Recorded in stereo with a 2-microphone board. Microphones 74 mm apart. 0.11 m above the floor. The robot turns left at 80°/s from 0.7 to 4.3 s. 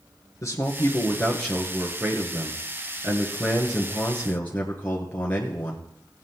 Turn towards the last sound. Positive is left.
turn(degrees=145)